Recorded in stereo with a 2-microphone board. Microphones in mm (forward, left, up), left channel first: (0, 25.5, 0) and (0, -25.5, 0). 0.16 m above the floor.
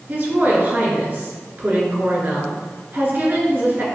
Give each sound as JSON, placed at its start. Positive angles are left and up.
{"t": 0.1, "sound": "a woman speaking", "side_deg": -35, "distance_m": 2.0}